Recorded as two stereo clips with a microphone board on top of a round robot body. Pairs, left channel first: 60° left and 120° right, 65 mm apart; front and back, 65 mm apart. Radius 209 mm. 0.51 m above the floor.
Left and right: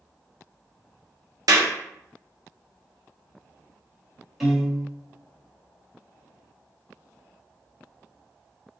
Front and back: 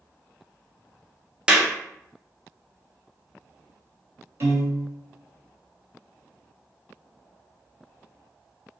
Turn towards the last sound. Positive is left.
turn(degrees=155)